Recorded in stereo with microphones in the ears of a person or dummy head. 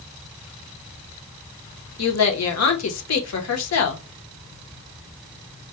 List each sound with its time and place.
2.0 s a woman speaking: 75° left (ahead or behind), 0.7 m